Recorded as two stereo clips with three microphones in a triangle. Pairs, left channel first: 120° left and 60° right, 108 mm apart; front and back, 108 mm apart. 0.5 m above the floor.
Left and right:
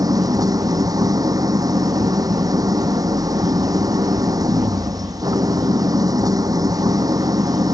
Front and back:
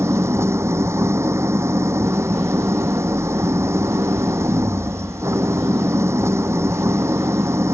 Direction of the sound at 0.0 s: 115° right.